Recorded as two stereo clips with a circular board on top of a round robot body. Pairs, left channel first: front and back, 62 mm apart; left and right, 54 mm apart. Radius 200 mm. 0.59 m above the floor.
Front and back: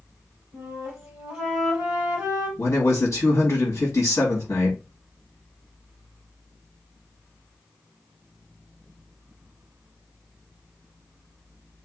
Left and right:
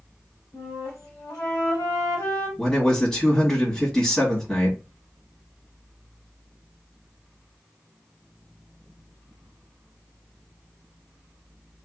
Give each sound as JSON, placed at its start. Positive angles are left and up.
{"t": 0.5, "sound": "a flute", "azimuth_deg": 105, "distance_m": 0.7}
{"t": 2.6, "sound": "a man speaking", "azimuth_deg": 10, "distance_m": 1.8}